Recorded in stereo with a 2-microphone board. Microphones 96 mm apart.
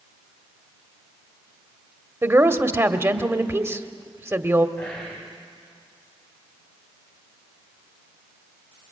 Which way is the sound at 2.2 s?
25° right (ahead or behind).